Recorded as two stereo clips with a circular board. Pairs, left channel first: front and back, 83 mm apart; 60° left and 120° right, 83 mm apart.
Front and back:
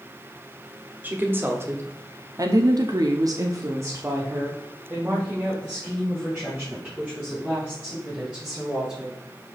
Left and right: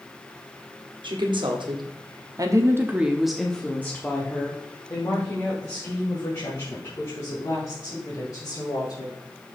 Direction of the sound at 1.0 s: 115° right.